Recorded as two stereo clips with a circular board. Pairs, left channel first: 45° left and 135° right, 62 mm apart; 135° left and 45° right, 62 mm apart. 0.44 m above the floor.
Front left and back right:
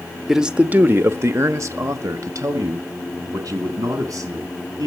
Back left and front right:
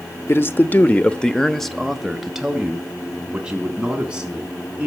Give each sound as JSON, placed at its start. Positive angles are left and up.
{"t": 0.3, "sound": "a man speaking", "azimuth_deg": 145, "distance_m": 0.9}